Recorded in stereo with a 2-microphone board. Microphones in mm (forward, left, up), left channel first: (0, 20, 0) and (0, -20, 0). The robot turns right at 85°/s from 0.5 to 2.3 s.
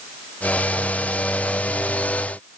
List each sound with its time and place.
Only background noise.